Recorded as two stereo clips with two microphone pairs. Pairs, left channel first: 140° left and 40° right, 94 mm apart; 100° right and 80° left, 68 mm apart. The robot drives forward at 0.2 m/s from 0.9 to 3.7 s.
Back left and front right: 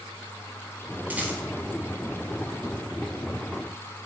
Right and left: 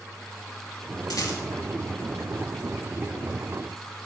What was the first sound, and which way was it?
A rattle, 110° right.